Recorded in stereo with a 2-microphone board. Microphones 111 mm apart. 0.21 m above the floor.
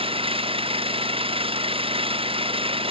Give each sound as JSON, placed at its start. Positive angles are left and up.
{"t": 0.0, "sound": "an engine running", "side_deg": -55}